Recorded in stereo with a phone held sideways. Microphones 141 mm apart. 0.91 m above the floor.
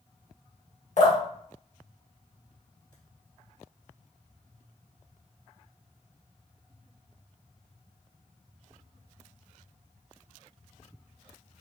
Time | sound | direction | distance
1.0 | dripping | 55° left (ahead or behind) | 1.5 m